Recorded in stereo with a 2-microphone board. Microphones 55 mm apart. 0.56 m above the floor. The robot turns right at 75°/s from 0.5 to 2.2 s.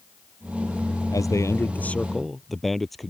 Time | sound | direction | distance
1.1 | a man speaking | 95° left | ?